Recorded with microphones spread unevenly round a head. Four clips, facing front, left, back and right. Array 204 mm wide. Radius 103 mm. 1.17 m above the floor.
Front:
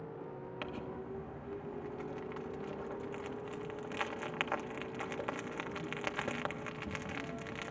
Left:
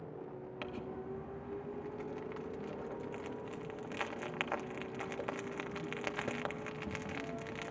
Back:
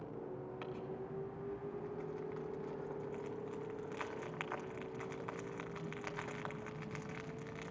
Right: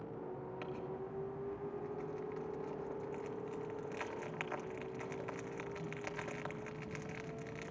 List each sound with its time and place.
0.6 s crumpling: 65° left, 1.2 m